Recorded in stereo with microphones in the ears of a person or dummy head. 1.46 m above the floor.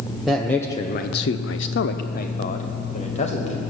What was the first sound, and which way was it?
A man speaking, 10° left (ahead or behind).